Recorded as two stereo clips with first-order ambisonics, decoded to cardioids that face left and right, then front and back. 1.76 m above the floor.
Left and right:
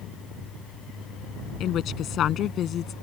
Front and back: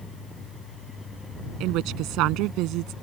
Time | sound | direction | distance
1.6 | a woman speaking | 145° left | ?